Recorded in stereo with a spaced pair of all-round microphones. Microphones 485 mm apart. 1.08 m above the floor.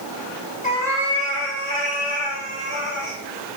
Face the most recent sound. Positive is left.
turn(degrees=-70)  # may be behind; listen again after turning